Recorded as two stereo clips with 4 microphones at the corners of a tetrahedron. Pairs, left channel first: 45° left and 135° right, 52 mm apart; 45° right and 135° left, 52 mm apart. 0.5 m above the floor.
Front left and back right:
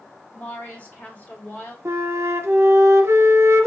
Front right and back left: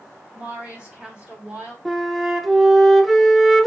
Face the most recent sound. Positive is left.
turn(degrees=-140)